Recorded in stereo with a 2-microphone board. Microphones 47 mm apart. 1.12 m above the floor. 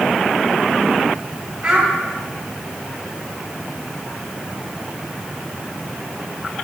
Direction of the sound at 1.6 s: 35° right (ahead or behind).